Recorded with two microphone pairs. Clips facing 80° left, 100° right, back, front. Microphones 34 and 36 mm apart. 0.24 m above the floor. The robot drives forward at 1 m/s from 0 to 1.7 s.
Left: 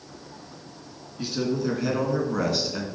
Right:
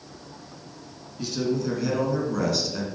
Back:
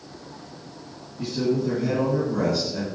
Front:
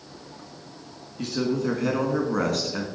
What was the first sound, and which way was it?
A man speaking, 5° left.